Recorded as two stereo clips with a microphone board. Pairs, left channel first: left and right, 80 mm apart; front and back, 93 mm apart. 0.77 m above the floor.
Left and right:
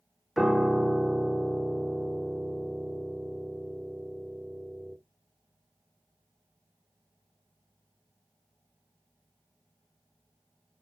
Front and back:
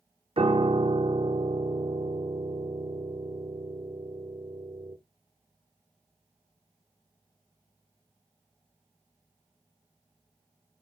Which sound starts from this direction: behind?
A piano, at 0.4 s.